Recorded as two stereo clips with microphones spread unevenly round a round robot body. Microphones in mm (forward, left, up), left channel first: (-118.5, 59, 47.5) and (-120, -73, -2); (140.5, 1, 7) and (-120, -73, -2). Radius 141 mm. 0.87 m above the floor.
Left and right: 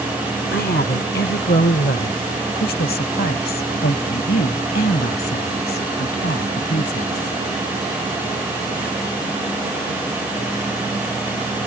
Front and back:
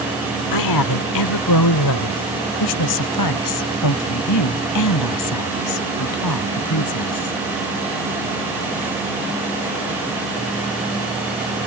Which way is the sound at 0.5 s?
35° left.